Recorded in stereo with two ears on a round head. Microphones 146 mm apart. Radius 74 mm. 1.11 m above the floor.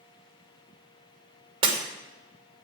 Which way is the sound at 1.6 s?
30° right (ahead or behind).